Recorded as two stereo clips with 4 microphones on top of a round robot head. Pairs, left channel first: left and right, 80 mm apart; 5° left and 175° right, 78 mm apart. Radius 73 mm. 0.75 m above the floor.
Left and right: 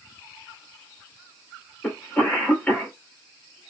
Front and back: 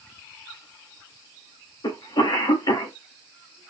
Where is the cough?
20° left, 2.5 m.